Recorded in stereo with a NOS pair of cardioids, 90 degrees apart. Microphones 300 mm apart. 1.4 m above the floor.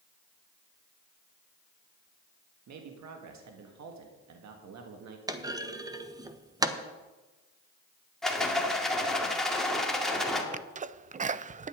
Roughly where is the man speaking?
Ahead right.